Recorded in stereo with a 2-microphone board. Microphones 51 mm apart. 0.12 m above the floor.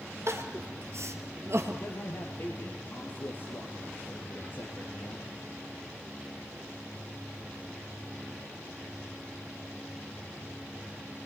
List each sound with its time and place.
0.3 s crying: 55° right (ahead or behind), 1.9 m
1.7 s a man speaking: 55° left (ahead or behind), 3 m